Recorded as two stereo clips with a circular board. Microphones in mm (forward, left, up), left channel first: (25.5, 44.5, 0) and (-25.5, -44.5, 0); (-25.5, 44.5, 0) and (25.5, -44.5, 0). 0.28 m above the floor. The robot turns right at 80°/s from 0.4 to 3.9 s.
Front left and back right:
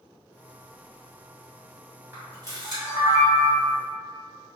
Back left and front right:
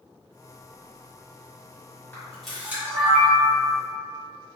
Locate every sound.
2.1 s a camera shutter: 175° right, 1.9 m; by 3.7 s 50° right, 1.9 m